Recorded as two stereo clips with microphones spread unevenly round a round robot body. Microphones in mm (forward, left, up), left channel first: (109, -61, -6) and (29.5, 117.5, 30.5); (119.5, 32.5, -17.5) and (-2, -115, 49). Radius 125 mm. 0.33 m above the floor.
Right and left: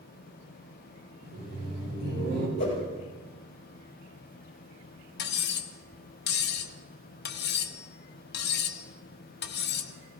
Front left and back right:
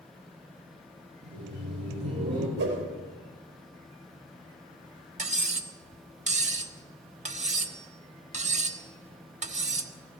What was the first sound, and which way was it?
Laughter, 170° left.